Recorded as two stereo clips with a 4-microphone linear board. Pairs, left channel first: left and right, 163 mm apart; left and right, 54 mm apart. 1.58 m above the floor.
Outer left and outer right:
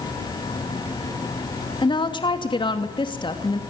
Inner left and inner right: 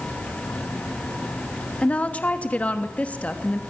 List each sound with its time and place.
1.8 s a woman speaking: 30° left (ahead or behind), 3 m